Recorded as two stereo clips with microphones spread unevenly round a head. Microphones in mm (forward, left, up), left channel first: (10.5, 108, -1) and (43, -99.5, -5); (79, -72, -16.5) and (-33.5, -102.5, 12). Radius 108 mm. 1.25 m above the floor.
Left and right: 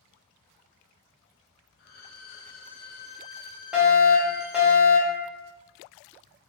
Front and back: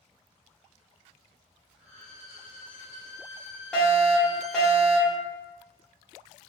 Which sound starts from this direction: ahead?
A fire alarm, at 3.7 s.